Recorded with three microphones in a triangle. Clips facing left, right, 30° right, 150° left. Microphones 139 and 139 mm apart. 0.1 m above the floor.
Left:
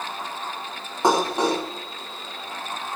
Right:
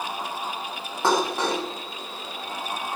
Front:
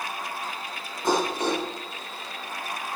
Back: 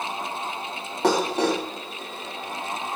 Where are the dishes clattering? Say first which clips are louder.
Left 3 dB, back 3 dB; 165° left, 7 m.